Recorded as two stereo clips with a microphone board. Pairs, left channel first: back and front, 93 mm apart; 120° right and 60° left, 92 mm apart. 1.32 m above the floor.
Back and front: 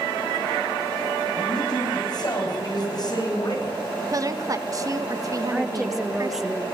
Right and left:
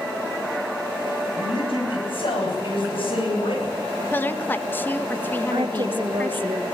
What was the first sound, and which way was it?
A man speaking, 135° right.